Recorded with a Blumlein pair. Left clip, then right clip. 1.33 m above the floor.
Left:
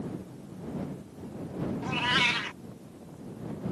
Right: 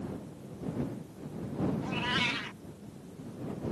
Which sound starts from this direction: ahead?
A cat meowing, at 1.8 s.